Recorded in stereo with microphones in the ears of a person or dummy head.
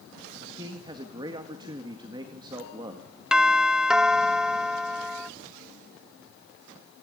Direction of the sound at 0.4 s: 25° right (ahead or behind).